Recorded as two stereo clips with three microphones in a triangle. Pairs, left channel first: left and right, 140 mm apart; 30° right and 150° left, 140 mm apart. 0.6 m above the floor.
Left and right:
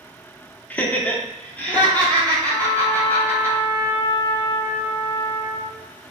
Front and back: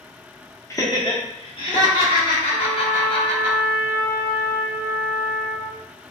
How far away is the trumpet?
About 2.5 m.